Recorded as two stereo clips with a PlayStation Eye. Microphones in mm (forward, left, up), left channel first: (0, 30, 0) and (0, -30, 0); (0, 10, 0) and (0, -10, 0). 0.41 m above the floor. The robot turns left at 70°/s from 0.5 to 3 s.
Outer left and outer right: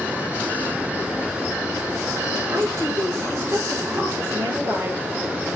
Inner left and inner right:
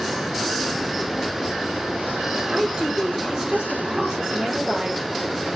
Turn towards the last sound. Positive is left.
turn(degrees=-130)